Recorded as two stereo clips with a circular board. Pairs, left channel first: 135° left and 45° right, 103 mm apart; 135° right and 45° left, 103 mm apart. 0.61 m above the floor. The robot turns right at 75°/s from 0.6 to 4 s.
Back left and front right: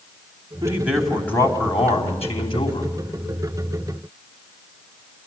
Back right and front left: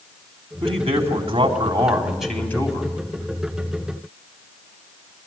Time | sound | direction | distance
0.6 | a man speaking | 10° left | 4 m